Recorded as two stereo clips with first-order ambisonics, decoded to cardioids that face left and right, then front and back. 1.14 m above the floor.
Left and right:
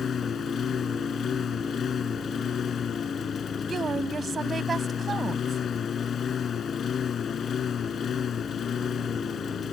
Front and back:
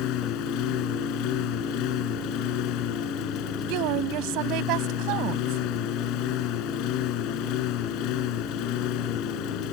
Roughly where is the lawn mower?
Ahead left.